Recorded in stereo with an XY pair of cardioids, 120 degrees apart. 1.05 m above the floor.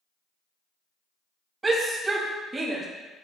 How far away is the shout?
About 1.7 m.